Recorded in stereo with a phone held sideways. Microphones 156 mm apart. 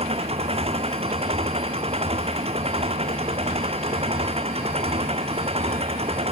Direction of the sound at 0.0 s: 40° right (ahead or behind).